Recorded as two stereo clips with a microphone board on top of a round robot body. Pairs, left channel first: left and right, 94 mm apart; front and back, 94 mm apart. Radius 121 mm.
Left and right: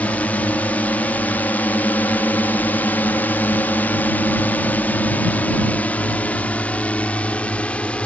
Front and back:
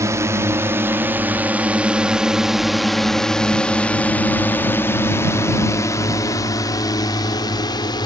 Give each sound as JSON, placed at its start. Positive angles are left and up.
{"t": 0.0, "sound": "a drone", "azimuth_deg": 150}